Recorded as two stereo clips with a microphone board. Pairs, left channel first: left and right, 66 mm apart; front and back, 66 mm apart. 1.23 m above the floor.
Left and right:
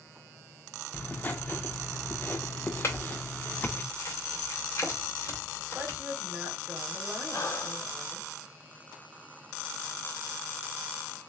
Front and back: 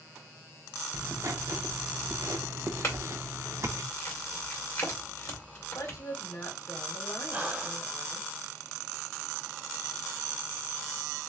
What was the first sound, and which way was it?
Writing, 145° left.